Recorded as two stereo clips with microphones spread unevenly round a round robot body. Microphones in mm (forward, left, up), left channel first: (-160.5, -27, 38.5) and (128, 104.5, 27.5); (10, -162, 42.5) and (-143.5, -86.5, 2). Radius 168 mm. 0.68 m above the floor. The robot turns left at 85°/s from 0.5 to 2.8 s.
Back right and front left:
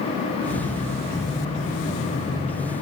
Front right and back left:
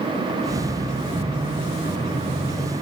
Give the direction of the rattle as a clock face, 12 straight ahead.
I don't hear a rattle.